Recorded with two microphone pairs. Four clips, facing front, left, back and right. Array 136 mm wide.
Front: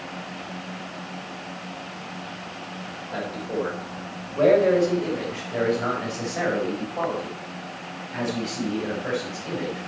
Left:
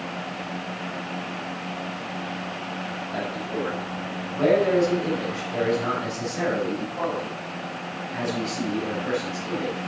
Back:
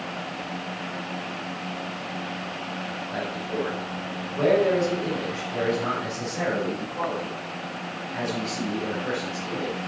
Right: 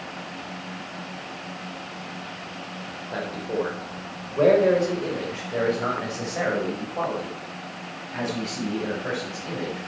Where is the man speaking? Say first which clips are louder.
Right 3 dB, front 2 dB; 75° right, 3.5 m; by 9.8 s 45° right, 6.5 m.